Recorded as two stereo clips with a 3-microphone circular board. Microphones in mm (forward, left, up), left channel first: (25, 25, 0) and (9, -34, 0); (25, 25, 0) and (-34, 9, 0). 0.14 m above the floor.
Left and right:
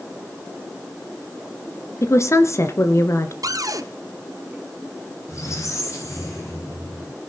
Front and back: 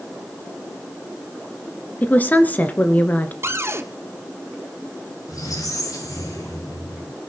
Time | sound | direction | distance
2.0 | a woman speaking | 70° left | 2 m
3.4 | a cupboard door | 120° right | 1.3 m
5.3 | a squeak | 35° left | 9 m